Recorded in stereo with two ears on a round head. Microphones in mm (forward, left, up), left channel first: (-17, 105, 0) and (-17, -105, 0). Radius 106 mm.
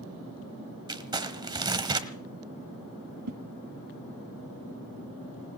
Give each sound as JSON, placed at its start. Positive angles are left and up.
{"t": 0.9, "sound": "crumpling", "side_deg": -20, "distance_m": 1.1}
{"t": 3.3, "sound": "a whoosh", "side_deg": -75, "distance_m": 0.7}